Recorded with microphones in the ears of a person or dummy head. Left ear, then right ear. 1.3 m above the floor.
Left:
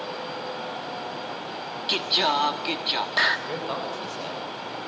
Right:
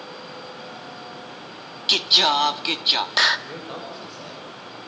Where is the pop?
I don't hear a pop.